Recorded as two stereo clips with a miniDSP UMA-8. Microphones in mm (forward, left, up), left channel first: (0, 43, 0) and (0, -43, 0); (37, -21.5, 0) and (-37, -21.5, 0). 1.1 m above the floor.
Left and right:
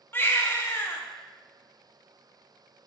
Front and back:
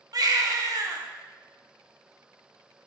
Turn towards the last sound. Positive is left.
turn(degrees=150)